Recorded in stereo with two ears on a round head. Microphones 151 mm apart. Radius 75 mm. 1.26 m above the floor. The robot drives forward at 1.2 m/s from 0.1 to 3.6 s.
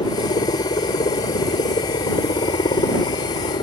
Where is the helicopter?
25° left (ahead or behind); by 3.6 s 30° left (ahead or behind).